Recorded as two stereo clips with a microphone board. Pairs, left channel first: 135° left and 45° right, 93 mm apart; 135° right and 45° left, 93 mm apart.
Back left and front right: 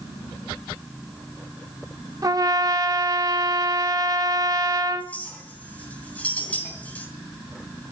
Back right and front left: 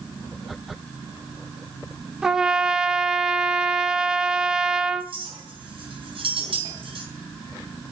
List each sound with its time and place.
2.2 s a trumpet: 35° right, 1.1 m
5.0 s a clink: 60° left, 3.5 m